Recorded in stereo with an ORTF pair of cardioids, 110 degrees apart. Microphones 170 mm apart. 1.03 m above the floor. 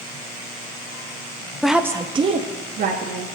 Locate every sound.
1.6 s a woman speaking: straight ahead, 0.8 m; by 3.2 s 55° right, 1.7 m